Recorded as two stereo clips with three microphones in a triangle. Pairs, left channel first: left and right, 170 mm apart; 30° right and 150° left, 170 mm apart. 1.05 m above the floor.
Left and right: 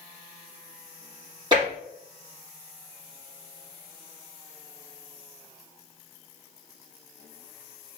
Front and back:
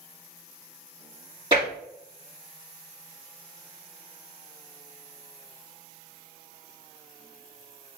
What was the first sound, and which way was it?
Tapping, 150° right.